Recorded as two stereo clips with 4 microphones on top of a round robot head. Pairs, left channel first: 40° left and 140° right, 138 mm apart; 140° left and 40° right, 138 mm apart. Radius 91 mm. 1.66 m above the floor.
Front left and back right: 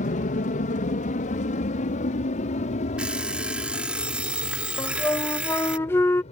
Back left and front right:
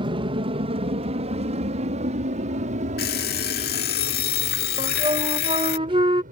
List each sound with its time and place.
0.0 s an aircraft: 15° left; by 6.3 s 5° right
3.0 s an alarm clock: 135° left
4.8 s a flute: 25° right